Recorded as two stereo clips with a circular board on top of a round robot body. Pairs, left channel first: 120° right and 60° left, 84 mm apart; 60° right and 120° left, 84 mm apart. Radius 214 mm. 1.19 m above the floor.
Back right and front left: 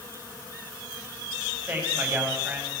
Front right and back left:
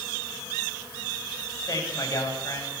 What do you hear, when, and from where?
1.7 s a man speaking: 10° right, 8 m